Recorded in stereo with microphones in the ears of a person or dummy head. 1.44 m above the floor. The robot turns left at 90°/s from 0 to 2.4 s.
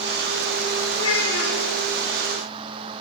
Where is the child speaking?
115° left, 1.9 m; by 1.6 s 55° left, 1.9 m.